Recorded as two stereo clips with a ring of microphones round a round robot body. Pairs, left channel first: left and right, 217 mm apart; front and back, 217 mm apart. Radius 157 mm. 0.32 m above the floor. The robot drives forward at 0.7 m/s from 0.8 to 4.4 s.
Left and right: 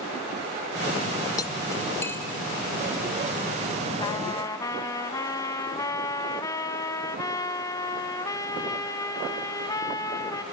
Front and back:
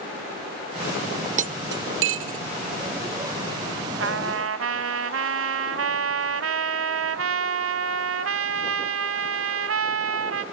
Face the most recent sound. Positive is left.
turn(degrees=170)